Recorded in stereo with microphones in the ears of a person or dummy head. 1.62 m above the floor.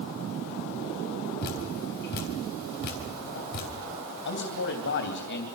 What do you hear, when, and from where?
1.4 s dripping: 55° left (ahead or behind), 3.5 m
4.2 s a man speaking: 60° left (ahead or behind), 3 m